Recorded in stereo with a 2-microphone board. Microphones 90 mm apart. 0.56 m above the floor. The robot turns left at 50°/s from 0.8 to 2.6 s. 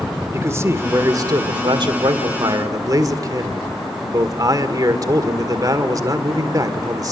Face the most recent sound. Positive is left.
turn(degrees=-125)